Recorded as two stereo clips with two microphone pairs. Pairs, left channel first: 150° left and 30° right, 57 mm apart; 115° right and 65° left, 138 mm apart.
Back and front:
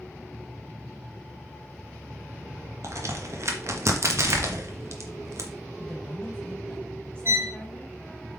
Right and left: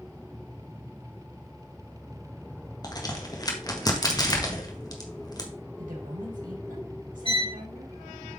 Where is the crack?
55° right, 1.6 m.